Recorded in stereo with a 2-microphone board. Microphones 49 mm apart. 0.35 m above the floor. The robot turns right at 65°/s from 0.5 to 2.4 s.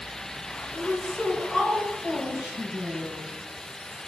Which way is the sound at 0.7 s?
115° left.